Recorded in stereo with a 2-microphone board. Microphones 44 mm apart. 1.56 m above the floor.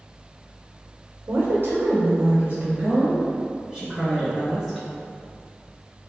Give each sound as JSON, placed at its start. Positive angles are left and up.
{"t": 1.3, "sound": "a woman speaking", "side_deg": -65, "distance_m": 0.8}